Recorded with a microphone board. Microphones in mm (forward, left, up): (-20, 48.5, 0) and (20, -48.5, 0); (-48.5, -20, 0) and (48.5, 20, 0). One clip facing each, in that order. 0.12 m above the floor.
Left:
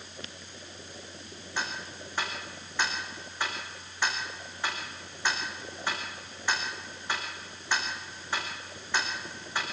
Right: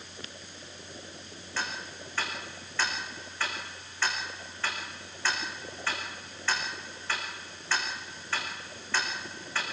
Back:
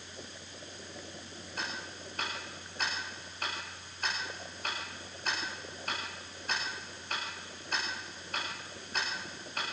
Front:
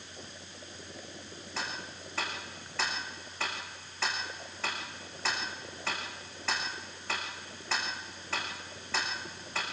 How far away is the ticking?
About 4 m.